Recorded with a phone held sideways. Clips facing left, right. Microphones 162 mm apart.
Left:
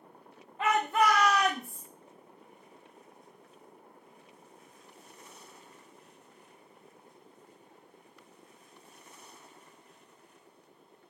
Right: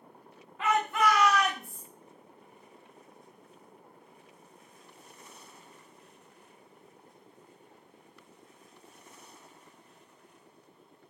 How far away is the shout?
About 0.7 m.